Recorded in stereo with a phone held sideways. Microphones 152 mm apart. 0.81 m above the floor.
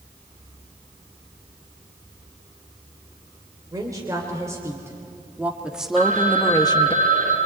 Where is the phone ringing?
55° right (ahead or behind), 6 m.